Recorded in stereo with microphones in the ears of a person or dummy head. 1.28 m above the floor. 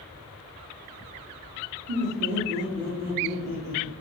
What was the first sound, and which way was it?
Laughter, 65° right (ahead or behind).